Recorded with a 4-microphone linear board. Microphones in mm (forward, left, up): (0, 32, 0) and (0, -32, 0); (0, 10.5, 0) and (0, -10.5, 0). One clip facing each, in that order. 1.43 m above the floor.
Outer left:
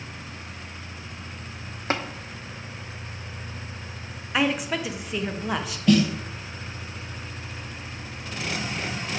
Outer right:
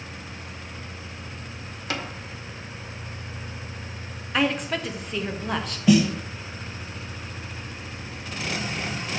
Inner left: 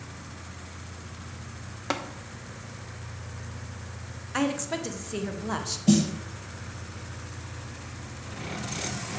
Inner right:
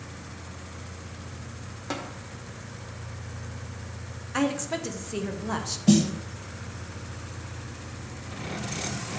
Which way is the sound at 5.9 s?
5° right (ahead or behind).